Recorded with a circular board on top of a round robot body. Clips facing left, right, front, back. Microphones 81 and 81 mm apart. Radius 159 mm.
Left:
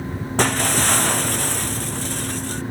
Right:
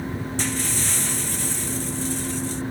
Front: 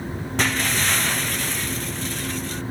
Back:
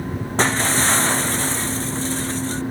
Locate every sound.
0.4 s breaking glass: 120° left